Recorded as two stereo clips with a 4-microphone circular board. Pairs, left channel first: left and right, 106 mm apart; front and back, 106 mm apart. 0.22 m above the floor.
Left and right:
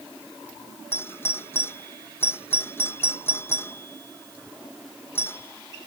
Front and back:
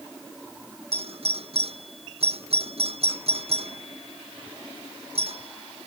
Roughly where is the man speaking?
No man speaking in this recording.